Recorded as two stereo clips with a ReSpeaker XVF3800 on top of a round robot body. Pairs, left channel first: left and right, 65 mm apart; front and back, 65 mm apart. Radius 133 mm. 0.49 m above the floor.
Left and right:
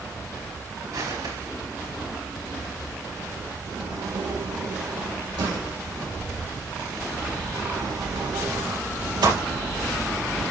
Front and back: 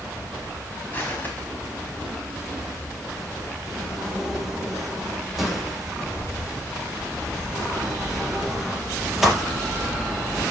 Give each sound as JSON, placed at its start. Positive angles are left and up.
{"t": 0.9, "sound": "footsteps", "azimuth_deg": -65, "distance_m": 5.5}
{"t": 3.7, "sound": "a sliding door", "azimuth_deg": -95, "distance_m": 4.5}